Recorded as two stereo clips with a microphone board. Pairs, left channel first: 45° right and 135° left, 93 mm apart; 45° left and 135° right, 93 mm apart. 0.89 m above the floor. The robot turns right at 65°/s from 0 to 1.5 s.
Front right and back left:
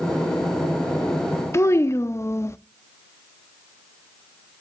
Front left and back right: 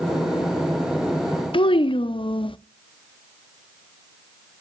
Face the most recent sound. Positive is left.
turn(degrees=15)